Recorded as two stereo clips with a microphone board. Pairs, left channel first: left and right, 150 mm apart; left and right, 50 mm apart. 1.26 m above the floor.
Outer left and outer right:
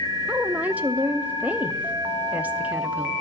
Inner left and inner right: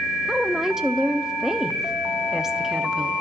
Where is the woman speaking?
10° right (ahead or behind), 0.7 m.